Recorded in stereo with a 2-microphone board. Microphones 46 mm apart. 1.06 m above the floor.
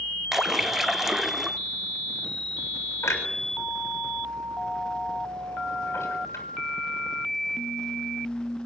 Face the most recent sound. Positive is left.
turn(degrees=75)  # may be behind; listen again after turning